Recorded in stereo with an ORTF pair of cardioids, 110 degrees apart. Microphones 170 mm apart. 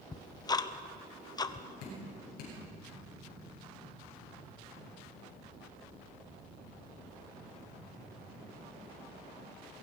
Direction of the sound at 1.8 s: 70° left.